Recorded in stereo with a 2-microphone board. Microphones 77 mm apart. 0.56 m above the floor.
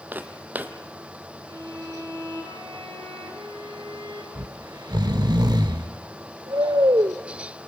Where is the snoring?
60° right (ahead or behind), 0.8 m.